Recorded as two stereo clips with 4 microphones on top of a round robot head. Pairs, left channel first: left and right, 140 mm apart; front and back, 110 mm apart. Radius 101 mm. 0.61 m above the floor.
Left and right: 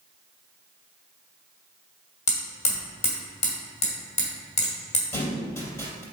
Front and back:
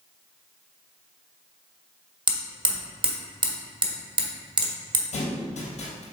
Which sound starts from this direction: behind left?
Hammering, at 2.3 s.